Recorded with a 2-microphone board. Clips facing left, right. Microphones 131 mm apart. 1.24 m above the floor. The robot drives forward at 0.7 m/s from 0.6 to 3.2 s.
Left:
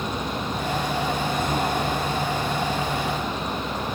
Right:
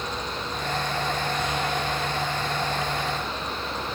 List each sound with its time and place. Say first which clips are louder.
0.0 s a vehicle: left 4 dB; 50° left (ahead or behind); by 4.0 s 45° left (ahead or behind)